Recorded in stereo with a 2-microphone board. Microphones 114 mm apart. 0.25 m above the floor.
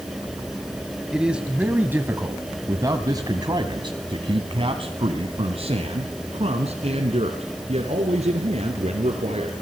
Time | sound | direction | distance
1.1 | a man speaking | 5° right (ahead or behind) | 2 m